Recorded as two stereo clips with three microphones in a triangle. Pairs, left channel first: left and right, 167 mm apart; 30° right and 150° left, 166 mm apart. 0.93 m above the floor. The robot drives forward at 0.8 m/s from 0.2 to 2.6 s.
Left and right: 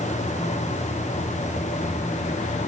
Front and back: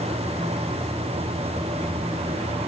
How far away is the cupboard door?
No cupboard door in this recording.